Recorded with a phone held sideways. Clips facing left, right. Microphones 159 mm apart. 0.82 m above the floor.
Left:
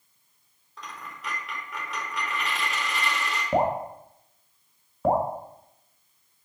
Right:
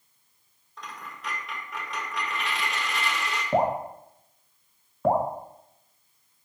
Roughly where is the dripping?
Centre.